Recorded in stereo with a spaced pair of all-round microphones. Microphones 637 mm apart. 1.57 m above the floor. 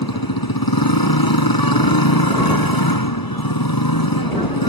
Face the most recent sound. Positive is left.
turn(degrees=35)  # may be behind; listen again after turning